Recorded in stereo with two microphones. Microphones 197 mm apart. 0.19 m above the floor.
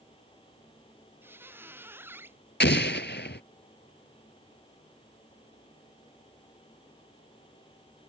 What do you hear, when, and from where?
1.2 s a squeak: 10° right (ahead or behind)
2.6 s an explosion: 65° left (ahead or behind)